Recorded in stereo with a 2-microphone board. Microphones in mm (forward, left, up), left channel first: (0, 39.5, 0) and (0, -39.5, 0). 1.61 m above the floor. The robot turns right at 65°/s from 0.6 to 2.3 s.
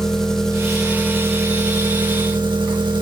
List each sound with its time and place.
0.0 s an engine running: 175° left, 2.0 m; by 3.0 s 75° right, 2.0 m